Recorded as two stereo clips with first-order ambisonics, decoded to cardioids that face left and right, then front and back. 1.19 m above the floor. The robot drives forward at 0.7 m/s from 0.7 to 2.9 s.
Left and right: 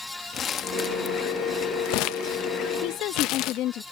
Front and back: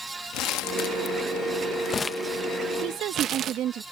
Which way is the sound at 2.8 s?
130° left.